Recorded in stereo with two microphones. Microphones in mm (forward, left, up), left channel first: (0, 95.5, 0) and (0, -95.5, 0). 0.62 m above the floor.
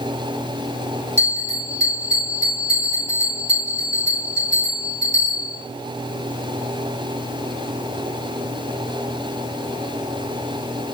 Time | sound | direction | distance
1.2 | a bell | 35° right (ahead or behind) | 4 m